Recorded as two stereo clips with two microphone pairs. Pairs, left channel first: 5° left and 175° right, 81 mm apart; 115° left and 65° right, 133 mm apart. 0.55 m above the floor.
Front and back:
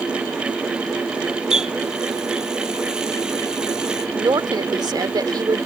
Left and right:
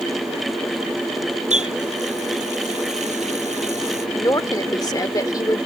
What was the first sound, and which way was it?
A running tap, 95° right.